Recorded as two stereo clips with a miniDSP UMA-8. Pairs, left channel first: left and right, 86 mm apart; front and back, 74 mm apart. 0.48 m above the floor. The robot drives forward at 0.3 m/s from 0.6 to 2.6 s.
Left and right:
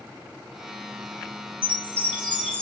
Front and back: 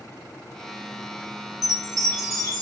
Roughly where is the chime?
Behind left.